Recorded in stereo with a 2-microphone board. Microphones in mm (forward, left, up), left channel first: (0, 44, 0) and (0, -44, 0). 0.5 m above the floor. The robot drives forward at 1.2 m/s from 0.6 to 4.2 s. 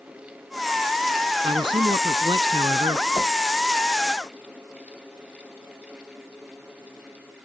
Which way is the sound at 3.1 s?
45° left (ahead or behind).